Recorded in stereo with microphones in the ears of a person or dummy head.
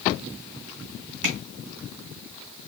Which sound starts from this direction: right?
Tapping, at 1.2 s.